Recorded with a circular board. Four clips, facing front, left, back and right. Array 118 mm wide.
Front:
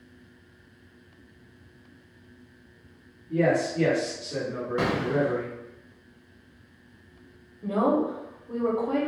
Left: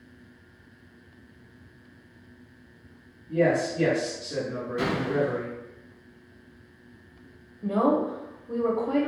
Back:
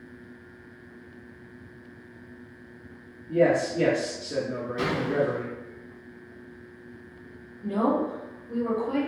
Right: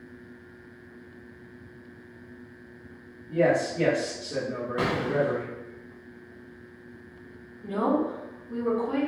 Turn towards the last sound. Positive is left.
turn(degrees=65)